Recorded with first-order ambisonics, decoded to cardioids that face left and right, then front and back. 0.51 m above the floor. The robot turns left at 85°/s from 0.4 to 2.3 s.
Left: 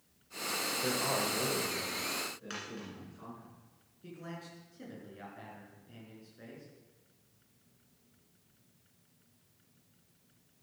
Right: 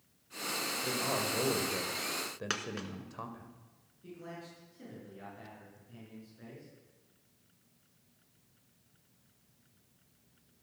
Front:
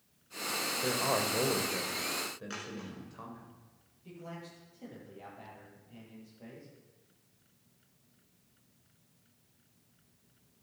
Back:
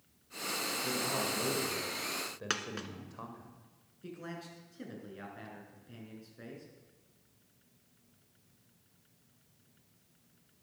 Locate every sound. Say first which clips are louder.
0.8 s a man speaking: left 1 dB, front 6 dB; 25° left, 2.5 m; by 3.5 s 100° right, 2.5 m
2.5 s a dropped coin: right 6 dB, back 6 dB; 140° right, 1.6 m
4.0 s a man speaking: even, back 2 dB; 165° left, 6 m